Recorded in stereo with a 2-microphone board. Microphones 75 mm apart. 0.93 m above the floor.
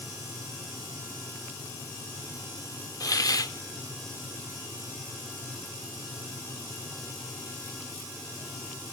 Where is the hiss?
55° left (ahead or behind), 0.9 m.